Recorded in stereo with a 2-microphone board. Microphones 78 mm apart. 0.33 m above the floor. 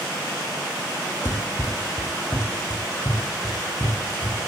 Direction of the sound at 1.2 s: 35° left (ahead or behind).